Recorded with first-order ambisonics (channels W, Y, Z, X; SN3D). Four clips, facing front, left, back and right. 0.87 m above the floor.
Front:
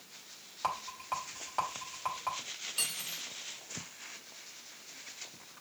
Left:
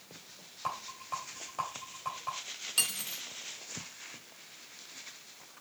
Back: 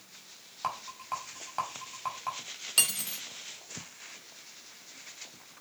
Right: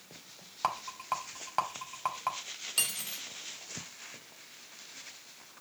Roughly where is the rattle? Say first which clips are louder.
Right 5 dB, even; right.